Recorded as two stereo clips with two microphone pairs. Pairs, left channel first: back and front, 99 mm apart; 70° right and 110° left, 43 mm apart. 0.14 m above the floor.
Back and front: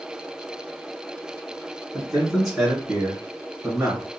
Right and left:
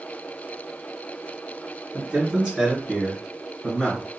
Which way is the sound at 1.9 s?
95° left.